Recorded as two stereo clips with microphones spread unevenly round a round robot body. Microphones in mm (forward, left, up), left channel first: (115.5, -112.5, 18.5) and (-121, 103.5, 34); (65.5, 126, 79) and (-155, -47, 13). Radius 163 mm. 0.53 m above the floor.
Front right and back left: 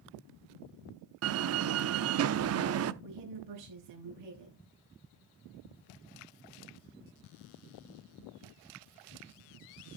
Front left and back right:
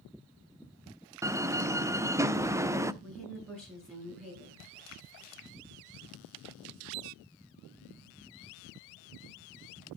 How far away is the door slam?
About 0.6 m.